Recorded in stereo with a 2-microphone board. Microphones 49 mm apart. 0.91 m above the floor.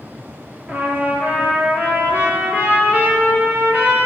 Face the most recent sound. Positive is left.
turn(degrees=-35)  # may be behind; listen again after turning